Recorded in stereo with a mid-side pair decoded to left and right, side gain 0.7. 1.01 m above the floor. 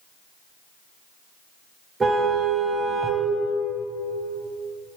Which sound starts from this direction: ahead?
A car horn, at 2.0 s.